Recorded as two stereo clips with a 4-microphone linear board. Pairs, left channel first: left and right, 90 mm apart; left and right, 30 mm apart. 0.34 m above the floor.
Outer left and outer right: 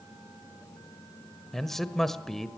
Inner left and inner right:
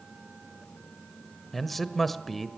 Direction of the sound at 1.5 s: 5° left (ahead or behind).